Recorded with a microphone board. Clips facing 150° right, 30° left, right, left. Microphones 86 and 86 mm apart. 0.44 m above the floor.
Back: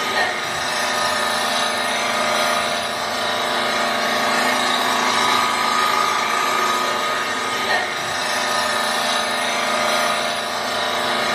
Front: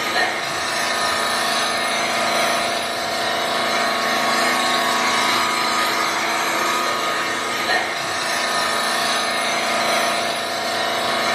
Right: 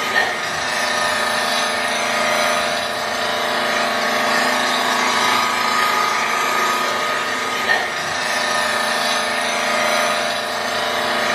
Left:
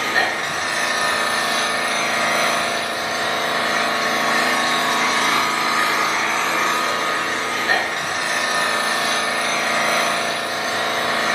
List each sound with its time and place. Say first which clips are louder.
0.0 s an engine running: even, right 1 dB; 105° right, 7.5 m